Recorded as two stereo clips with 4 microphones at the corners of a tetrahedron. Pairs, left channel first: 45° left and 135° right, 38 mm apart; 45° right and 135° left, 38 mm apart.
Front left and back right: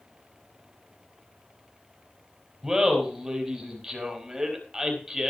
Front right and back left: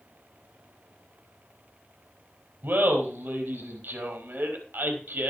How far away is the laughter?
About 4 m.